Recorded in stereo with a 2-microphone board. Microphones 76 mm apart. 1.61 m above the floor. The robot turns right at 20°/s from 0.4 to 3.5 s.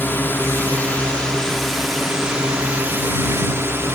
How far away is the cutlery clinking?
No cutlery clinking in this recording.